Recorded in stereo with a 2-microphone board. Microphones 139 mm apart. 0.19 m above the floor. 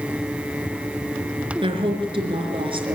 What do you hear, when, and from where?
1.6 s a woman speaking: 40° right (ahead or behind), 3.5 m